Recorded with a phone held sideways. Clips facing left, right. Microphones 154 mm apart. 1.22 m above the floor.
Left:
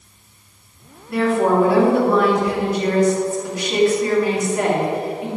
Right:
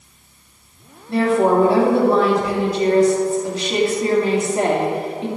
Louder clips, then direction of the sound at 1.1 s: Right 1 dB; 30° right (ahead or behind).